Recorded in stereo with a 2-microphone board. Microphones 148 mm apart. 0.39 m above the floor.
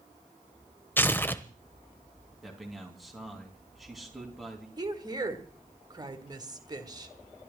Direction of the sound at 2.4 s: Centre (ahead or behind).